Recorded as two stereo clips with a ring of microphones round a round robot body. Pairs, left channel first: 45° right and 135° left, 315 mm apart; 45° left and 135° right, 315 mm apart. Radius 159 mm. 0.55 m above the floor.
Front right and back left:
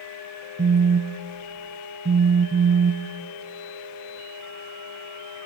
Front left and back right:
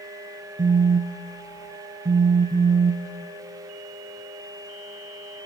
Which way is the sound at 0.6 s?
170° left.